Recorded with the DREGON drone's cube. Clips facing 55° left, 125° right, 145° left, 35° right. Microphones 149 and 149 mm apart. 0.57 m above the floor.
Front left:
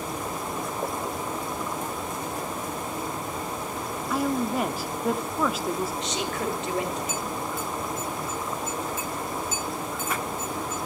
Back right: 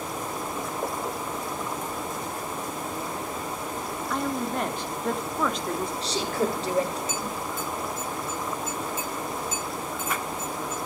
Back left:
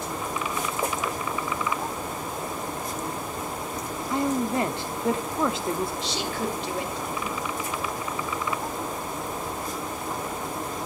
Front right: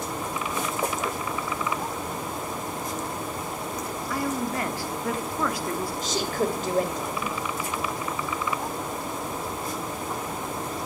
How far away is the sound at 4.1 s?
About 0.8 m.